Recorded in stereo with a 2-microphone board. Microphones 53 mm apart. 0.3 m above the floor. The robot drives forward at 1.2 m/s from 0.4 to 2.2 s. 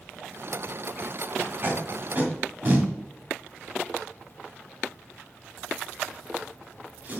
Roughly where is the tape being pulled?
Right.